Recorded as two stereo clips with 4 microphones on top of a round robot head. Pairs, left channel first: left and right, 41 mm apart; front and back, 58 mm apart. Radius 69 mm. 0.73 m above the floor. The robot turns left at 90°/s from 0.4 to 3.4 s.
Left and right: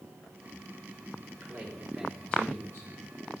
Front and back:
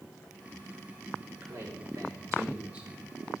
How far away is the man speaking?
About 3.5 m.